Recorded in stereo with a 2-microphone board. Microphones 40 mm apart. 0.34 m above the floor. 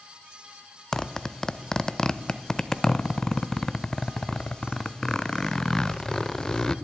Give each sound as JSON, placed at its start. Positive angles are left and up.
{"t": 0.9, "sound": "a zipper", "side_deg": 15, "distance_m": 0.5}